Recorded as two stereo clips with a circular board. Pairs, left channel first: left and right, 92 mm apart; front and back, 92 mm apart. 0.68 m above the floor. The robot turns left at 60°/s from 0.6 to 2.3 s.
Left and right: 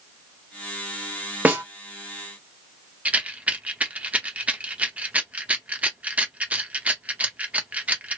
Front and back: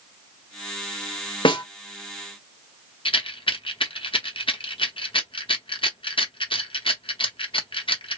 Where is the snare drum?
15° right, 0.8 m; by 1.6 s 25° right, 0.8 m.